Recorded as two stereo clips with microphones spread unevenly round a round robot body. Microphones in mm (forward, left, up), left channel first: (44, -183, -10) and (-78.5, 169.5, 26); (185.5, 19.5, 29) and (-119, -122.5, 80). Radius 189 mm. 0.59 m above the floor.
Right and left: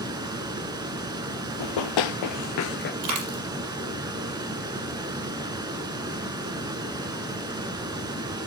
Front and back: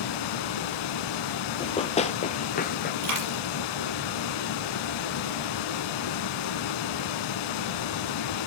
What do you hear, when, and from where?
0.0 s running water: 35° left, 0.8 m
1.6 s running footsteps: 55° right, 1.1 m; by 2.9 s 20° right, 0.6 m
3.0 s a dropped coin: 160° left, 6.5 m